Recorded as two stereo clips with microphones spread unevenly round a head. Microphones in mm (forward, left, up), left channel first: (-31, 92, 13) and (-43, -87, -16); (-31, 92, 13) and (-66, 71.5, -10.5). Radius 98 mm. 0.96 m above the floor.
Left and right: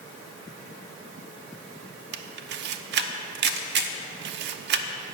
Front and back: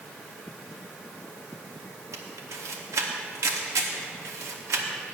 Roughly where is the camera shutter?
Behind right.